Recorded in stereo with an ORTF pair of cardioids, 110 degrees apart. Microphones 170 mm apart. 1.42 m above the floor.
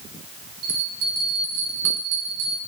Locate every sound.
0.6 s a bell: 70° right, 3.5 m